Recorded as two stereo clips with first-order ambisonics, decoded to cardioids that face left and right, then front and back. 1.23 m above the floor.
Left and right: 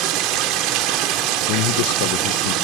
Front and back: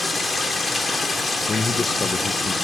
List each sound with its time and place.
0.0 s running water: 80° right, 1.6 m
1.5 s a man speaking: 75° left, 0.7 m